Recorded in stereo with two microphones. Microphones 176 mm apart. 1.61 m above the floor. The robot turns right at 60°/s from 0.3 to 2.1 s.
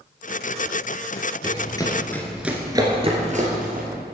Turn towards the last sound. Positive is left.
turn(degrees=-55)  # may be behind; listen again after turning